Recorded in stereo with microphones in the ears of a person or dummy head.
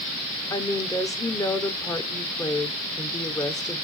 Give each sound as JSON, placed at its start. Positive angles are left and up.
{"t": 0.5, "sound": "a woman speaking", "side_deg": 20, "distance_m": 0.7}